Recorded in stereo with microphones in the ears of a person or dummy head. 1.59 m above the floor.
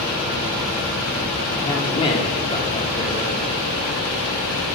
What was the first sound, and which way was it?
A man speaking, 30° left (ahead or behind).